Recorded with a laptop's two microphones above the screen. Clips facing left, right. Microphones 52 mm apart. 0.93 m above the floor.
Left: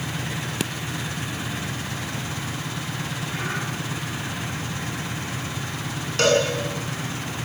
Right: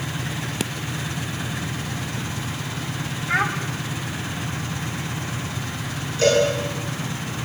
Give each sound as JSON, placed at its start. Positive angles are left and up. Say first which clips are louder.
{"t": 3.3, "sound": "a child speaking", "louder": "right 11 dB", "side_deg": -85, "distance_m": 3.0}
{"t": 6.2, "sound": "a cowbell", "louder": "right 2 dB", "side_deg": 70, "distance_m": 8.5}